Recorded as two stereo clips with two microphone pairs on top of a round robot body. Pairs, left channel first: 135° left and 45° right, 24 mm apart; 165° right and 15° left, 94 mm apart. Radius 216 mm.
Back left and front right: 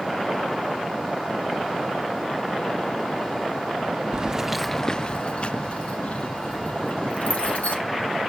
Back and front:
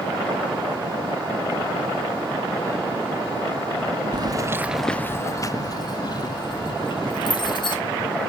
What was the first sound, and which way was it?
Keys jangling, 5° left.